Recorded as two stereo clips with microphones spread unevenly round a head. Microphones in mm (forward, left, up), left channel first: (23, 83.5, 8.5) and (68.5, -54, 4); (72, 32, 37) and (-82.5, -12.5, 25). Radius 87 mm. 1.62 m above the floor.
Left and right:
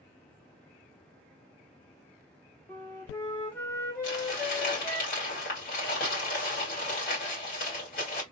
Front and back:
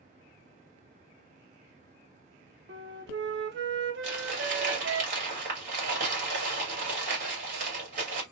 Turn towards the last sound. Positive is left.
turn(degrees=155)